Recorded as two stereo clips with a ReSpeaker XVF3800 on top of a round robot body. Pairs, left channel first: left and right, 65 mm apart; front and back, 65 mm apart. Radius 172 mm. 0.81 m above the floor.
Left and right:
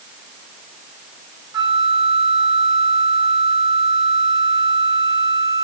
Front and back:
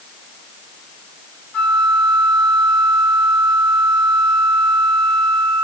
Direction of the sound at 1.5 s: 75° right.